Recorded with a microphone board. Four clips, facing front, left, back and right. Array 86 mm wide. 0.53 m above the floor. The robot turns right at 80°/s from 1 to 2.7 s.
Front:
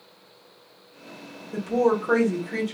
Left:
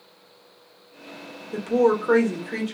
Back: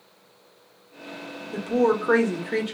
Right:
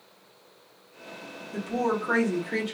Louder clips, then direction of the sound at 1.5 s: Left 8 dB, even; 110° left.